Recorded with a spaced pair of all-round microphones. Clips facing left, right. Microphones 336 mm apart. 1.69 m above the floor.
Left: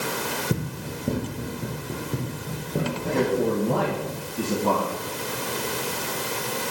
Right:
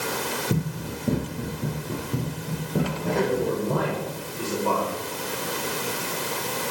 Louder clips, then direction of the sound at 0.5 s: Right 1 dB; centre (ahead or behind).